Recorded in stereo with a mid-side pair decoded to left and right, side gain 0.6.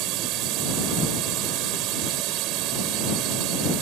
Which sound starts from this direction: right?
A drone, at 0.0 s.